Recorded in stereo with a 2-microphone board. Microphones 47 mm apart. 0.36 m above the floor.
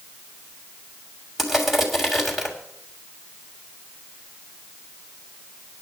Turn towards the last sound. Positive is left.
turn(degrees=0)  # may be behind; listen again after turning